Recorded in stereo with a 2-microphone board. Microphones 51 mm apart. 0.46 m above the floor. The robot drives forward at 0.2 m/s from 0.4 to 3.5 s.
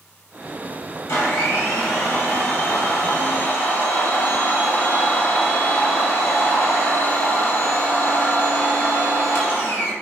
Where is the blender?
75° left (ahead or behind), 1.1 m; by 9.9 s 60° left (ahead or behind), 1.3 m.